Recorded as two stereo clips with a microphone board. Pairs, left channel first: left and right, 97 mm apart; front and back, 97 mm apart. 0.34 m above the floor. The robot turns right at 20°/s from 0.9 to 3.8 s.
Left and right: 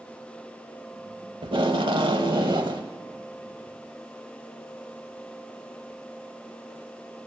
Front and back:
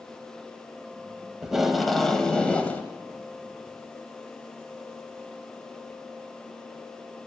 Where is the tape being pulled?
100° right, 0.7 m; by 2.9 s 70° right, 0.7 m.